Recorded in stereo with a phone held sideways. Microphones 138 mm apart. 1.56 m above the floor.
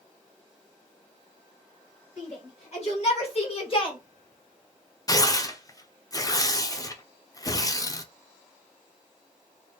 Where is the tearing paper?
25° left (ahead or behind), 0.6 m.